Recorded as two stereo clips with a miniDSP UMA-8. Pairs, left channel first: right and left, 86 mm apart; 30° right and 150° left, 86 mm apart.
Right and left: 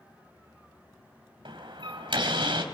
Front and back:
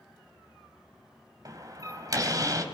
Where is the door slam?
105° left, 4 m.